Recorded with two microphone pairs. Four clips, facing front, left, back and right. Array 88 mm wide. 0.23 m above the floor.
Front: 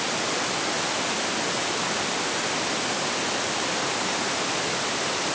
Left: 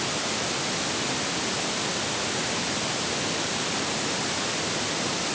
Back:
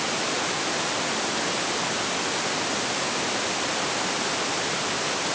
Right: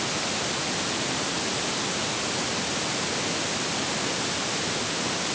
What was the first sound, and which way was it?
Only background noise.